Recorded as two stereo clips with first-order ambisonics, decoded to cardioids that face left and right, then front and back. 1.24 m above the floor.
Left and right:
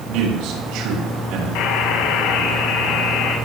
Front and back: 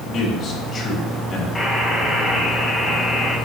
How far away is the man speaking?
About 7 m.